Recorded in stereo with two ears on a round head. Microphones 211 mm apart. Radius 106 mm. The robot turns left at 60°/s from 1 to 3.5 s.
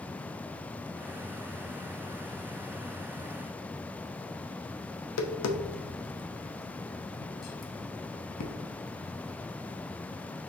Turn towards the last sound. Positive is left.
turn(degrees=75)  # may be behind; listen again after turning